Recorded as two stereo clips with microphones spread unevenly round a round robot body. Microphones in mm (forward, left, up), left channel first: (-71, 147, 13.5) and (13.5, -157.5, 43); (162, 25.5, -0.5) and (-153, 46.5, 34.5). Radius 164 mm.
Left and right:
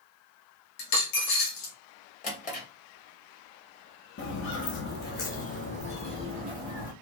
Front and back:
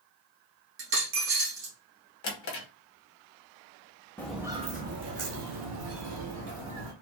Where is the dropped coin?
125° left, 1.4 m.